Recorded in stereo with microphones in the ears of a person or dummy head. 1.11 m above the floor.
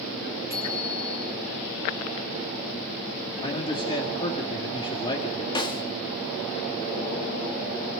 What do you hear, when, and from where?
0.5 s a bicycle bell: 10° right (ahead or behind), 8 m
3.4 s a man speaking: 25° left (ahead or behind), 2 m
5.5 s a snare drum: 25° left (ahead or behind), 1.5 m